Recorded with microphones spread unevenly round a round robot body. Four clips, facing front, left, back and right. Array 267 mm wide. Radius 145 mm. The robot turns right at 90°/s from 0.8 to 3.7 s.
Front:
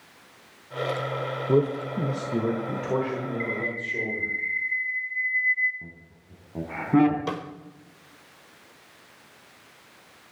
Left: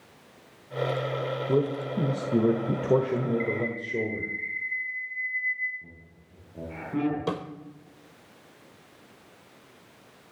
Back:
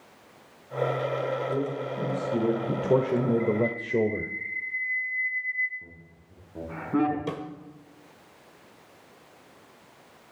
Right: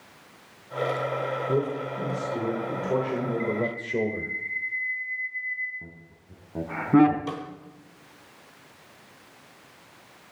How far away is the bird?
About 1.5 m.